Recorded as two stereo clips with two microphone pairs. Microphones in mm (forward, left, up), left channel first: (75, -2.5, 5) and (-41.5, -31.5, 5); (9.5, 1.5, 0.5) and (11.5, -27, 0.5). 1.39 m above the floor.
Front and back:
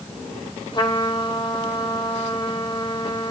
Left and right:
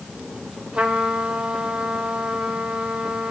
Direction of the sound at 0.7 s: 40° right.